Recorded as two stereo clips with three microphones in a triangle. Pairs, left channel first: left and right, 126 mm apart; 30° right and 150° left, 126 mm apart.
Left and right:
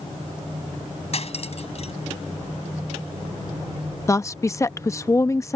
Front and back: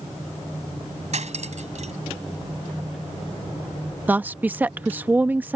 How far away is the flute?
I don't hear a flute.